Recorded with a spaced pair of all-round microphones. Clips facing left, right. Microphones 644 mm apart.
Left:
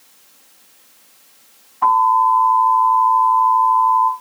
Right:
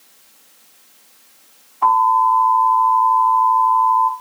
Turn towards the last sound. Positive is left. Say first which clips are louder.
# even
turn(degrees=50)  # may be behind; listen again after turning